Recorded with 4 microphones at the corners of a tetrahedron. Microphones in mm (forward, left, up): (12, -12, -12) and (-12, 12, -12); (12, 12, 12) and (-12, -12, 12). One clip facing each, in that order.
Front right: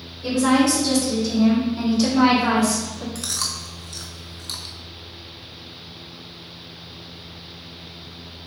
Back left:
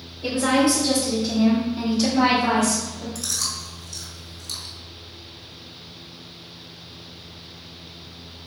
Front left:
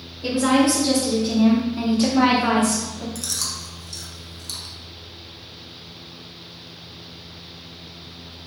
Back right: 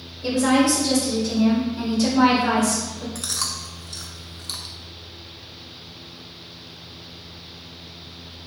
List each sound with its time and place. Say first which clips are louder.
0.2 s a woman speaking: front right 2 dB, even; 90° left, 1.8 m; by 3.0 s 10° left, 1.5 m
3.1 s chewing: even, back right 1 dB; 90° right, 0.7 m